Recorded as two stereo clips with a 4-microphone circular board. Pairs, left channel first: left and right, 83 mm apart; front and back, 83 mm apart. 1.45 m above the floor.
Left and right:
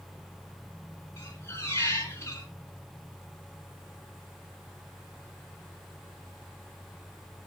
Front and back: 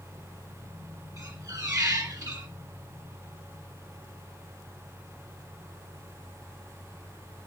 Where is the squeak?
140° left, 2.5 m.